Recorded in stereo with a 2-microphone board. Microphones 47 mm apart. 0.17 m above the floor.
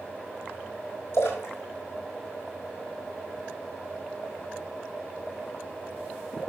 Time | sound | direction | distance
1.1 | a splash | 50° left (ahead or behind) | 4 m